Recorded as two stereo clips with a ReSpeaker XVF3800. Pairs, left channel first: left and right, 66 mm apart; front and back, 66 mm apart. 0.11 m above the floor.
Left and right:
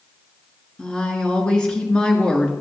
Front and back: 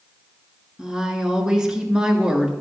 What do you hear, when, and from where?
0.8 s a woman speaking: 130° left, 1.1 m